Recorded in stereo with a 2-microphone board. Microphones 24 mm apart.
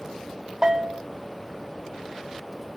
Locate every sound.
0.6 s a bell: 25° right (ahead or behind), 1.0 m